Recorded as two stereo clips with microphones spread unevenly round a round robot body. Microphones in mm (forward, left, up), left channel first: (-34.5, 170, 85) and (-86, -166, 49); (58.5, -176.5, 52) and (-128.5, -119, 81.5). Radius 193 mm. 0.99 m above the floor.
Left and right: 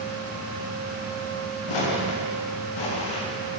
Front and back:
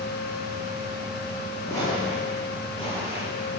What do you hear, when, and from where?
1.7 s footsteps: 65° left, 9.5 m; by 3.3 s 55° left, 10 m